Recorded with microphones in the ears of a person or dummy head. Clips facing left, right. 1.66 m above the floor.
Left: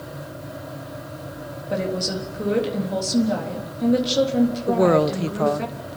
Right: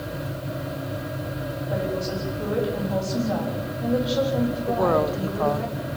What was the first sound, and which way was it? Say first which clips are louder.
A woman speaking: left 3 dB; 35° left (ahead or behind).